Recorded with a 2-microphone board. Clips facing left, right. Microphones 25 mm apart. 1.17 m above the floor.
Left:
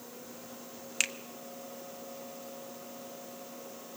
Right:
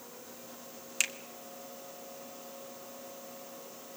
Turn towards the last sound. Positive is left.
turn(degrees=10)  # may be behind; listen again after turning